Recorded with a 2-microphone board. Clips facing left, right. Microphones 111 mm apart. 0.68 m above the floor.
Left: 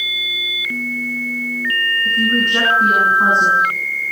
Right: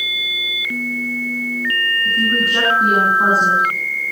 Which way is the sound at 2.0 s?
5° right (ahead or behind).